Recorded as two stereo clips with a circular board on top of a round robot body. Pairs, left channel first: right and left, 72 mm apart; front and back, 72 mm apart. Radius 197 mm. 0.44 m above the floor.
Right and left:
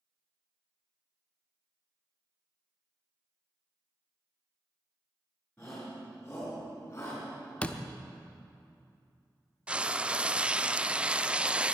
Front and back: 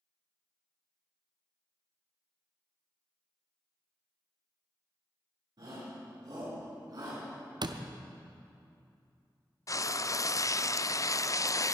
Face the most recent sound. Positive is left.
turn(degrees=20)